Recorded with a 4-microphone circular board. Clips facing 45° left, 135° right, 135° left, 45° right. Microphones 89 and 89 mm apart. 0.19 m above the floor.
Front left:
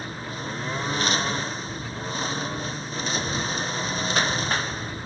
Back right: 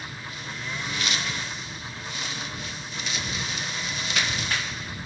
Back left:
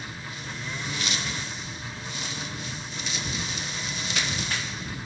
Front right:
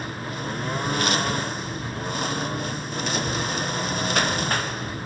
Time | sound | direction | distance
0.0 | a lawn mower | 10° right | ?